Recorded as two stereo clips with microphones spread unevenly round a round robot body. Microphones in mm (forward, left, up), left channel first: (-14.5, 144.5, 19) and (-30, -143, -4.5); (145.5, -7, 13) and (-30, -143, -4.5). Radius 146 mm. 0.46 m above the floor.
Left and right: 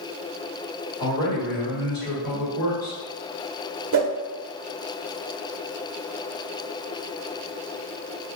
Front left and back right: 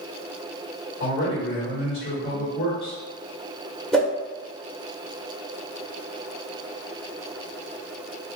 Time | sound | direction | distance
1.0 | a man speaking | 30° left | 1.7 m
3.9 | a whoosh | 55° right | 0.9 m